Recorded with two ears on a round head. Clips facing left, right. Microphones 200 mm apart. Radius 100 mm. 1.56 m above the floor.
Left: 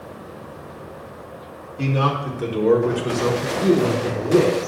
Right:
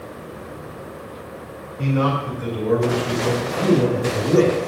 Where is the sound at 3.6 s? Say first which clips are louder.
Even; 30° right (ahead or behind), 3.5 m.